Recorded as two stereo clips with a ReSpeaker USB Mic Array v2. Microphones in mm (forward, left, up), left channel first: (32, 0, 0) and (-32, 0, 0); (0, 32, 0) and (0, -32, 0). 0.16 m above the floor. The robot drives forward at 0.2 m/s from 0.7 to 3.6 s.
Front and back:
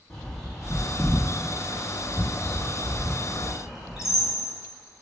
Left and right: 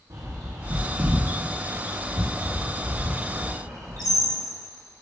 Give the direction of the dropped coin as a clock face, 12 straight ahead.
I don't hear a dropped coin.